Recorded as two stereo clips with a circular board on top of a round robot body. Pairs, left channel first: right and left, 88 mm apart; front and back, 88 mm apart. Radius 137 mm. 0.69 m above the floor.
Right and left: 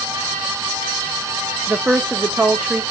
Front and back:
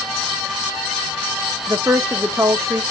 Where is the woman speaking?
160° left, 0.6 m.